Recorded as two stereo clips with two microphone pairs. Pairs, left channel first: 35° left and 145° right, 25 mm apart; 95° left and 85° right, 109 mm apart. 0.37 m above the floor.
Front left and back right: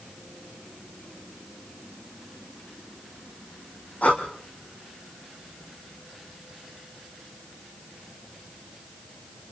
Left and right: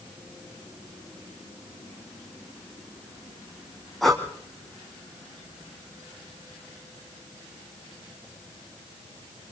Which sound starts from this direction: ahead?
Breathing, at 4.0 s.